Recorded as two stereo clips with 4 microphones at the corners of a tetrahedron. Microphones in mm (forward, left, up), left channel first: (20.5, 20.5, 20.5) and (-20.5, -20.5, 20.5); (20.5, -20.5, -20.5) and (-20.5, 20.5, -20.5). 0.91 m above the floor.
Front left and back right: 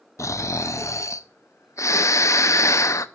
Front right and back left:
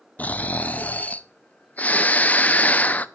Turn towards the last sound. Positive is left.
turn(degrees=15)